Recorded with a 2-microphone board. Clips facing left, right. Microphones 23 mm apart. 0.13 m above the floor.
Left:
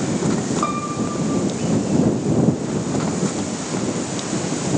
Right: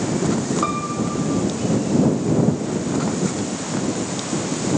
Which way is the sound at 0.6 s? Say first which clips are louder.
Even; 5° right (ahead or behind).